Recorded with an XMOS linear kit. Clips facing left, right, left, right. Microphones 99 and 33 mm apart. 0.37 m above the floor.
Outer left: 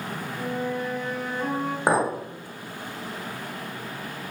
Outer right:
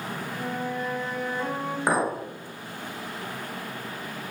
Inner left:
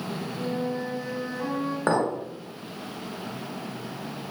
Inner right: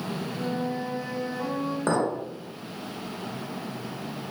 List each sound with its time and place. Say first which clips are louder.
0.4 s a flute: outer left 3 dB, inner left 1 dB; 35° right (ahead or behind), 1.5 m
1.9 s a clink: outer left 2 dB, inner left 2 dB; 25° left (ahead or behind), 0.8 m